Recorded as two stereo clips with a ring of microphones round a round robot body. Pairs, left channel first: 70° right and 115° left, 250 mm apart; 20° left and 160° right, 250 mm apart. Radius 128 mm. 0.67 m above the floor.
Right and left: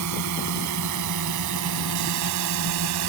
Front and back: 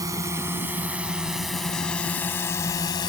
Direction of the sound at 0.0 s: 125° left.